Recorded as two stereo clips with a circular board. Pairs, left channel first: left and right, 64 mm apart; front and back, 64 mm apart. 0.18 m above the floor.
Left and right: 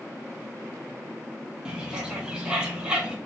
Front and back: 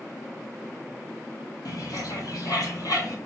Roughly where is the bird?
Ahead.